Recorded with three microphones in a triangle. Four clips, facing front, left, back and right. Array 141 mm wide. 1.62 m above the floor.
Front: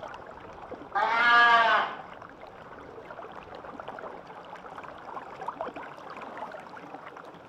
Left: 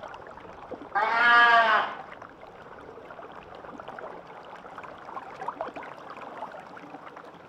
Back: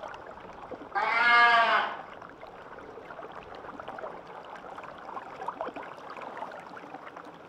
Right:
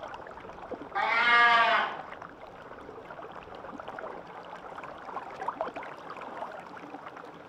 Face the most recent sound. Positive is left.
turn(degrees=70)